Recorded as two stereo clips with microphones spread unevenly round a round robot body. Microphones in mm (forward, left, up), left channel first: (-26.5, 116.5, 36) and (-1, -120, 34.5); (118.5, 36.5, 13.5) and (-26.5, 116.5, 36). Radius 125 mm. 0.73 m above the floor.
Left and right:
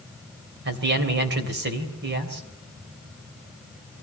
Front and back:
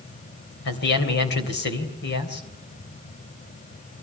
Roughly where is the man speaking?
Ahead right.